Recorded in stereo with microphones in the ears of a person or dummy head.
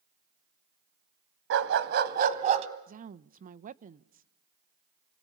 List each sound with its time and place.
1.5 s a dog barking: 65° right (ahead or behind), 2 m; by 2.7 s 30° right (ahead or behind), 2.5 m
2.9 s a woman speaking: 40° right (ahead or behind), 0.8 m